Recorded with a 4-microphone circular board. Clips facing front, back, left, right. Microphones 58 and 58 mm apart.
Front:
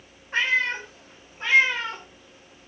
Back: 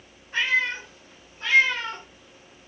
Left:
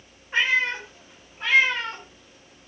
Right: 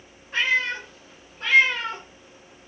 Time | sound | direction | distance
0.3 | a cat meowing | 25° left | 1.0 m